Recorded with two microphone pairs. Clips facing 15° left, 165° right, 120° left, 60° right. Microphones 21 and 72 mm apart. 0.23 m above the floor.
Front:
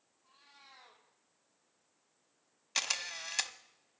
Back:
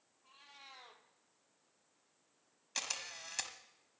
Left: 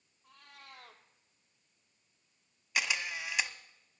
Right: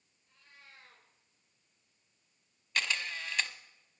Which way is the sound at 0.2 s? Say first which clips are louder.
Back 3 dB, left 5 dB; 140° left.